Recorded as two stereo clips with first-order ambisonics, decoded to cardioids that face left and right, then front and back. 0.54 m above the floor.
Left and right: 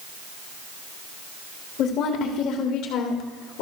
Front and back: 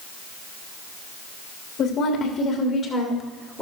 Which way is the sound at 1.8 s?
50° left.